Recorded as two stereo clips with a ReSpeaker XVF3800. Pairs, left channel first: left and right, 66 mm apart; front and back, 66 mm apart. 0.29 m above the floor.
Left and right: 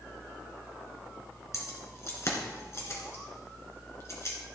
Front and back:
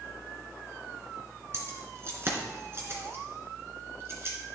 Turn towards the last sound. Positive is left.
turn(degrees=135)